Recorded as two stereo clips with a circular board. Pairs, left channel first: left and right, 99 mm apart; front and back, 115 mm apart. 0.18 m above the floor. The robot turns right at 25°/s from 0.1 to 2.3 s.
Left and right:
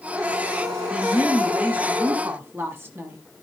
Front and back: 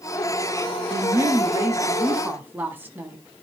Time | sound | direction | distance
0.9 | a woman speaking | 160° right | 1.1 m